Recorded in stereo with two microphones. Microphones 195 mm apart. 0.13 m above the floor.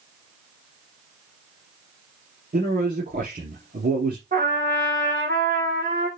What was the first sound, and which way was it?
A man speaking, 50° right (ahead or behind).